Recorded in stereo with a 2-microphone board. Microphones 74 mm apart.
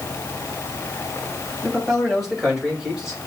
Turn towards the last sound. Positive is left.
turn(degrees=-10)  # may be behind; listen again after turning